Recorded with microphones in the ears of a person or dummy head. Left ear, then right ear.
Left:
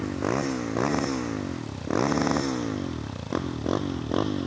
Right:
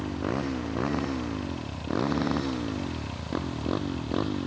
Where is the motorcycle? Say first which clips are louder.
Left 3 dB; 20° left (ahead or behind); by 4.5 s 15° left (ahead or behind).